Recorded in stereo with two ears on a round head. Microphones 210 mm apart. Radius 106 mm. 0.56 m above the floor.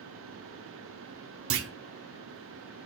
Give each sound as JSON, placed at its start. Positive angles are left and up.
{"t": 1.5, "sound": "a clunk", "side_deg": -55, "distance_m": 0.7}